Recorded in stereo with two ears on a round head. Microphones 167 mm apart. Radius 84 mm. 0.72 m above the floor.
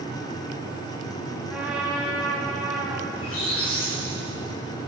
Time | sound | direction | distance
1.5 | a trumpet | 5° right (ahead or behind) | 6 m
3.1 | a squeak | 85° left | 8.5 m